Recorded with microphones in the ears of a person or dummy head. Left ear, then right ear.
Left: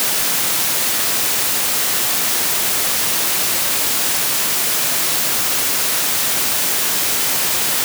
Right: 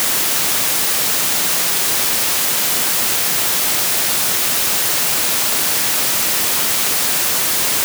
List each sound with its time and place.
Only background noise.